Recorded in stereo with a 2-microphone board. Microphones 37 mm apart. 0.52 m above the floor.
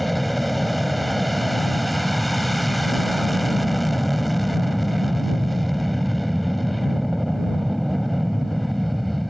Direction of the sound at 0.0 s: Centre (ahead or behind).